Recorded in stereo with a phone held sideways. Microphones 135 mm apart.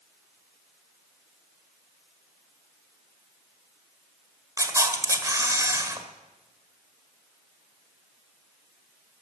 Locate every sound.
4.6 s a camera shutter: 25° right (ahead or behind), 1.5 m